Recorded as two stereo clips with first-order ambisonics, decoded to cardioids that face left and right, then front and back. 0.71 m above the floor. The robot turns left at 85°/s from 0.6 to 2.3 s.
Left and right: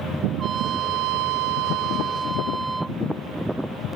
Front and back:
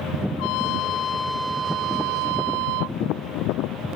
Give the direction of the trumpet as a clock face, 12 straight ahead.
1 o'clock.